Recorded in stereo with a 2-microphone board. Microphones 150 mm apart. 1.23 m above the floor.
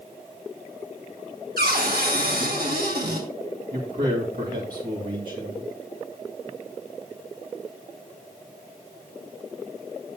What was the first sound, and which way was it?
A cupboard door, 85° right.